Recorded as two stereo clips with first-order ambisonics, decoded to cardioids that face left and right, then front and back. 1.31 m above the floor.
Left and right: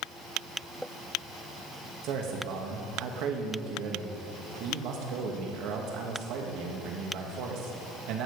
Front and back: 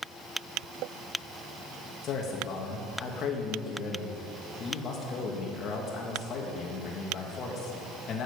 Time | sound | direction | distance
2.0 | a man speaking | 55° right | 1.8 m